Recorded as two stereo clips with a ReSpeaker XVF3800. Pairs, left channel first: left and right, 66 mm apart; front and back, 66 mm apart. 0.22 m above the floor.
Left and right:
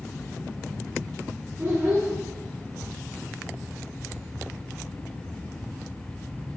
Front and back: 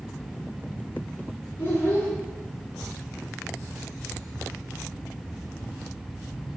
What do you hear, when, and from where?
1.6 s a child speaking: 45° right, 1.6 m